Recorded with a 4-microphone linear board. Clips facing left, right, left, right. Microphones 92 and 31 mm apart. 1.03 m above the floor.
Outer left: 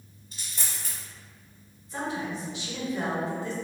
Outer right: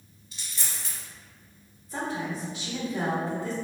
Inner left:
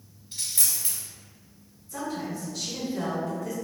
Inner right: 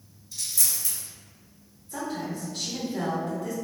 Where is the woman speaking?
40° right (ahead or behind), 1.6 m.